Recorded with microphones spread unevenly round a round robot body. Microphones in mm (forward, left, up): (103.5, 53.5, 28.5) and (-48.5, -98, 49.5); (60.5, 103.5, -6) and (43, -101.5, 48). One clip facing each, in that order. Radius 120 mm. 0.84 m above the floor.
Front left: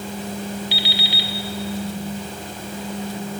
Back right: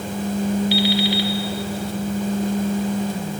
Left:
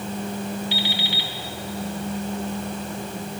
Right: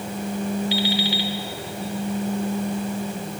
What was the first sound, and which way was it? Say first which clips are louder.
An alarm clock: back right 10 dB, right 5 dB; 90° right.